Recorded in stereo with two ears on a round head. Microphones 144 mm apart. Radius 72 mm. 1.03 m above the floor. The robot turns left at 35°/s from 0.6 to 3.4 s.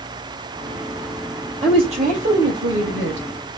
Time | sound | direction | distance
1.6 | a woman speaking | 30° right | 4 m